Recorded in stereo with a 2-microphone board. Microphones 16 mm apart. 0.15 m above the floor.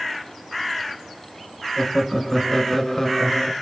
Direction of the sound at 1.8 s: 15° left (ahead or behind).